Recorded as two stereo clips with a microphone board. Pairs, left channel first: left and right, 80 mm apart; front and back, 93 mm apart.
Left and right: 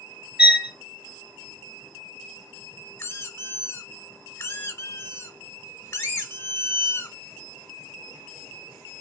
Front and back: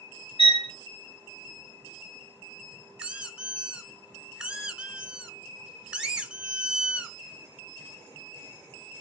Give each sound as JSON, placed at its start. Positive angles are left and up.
{"t": 0.4, "sound": "a violin", "azimuth_deg": -10, "distance_m": 2.5}
{"t": 3.0, "sound": "a squeak", "azimuth_deg": 105, "distance_m": 0.9}